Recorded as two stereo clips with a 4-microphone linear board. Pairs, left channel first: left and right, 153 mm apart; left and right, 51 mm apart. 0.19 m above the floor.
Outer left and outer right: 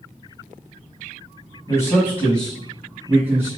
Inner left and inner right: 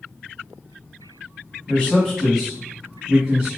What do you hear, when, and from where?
1.7 s a man speaking: 20° left (ahead or behind), 1.3 m; by 3.5 s 15° right (ahead or behind), 1.4 m